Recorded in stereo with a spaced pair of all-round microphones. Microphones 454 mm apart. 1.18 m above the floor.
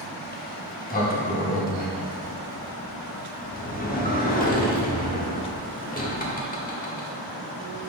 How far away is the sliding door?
About 1.0 m.